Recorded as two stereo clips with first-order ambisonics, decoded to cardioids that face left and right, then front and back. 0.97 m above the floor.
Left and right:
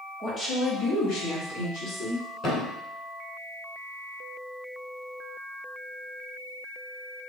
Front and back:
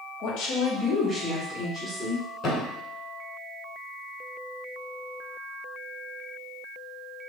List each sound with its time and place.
0.2 s a woman speaking: 10° left, 0.9 m; by 2.3 s 105° left, 1.9 m
2.4 s a thud: 50° left, 1.0 m